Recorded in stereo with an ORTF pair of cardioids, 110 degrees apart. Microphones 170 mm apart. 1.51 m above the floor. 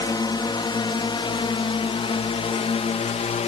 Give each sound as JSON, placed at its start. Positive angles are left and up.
{"t": 0.0, "sound": "a drone", "azimuth_deg": 25}